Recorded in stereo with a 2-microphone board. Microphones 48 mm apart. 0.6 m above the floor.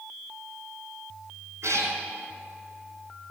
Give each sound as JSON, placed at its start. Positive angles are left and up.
{"t": 1.6, "sound": "a cat meowing", "side_deg": -80, "distance_m": 3.0}